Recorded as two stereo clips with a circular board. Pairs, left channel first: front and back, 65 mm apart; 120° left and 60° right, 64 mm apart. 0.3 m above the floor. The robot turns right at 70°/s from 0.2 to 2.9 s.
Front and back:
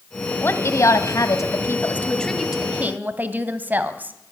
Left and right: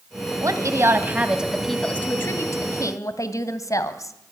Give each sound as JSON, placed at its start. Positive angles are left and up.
{"t": 0.4, "sound": "a woman speaking", "azimuth_deg": -50, "distance_m": 2.0}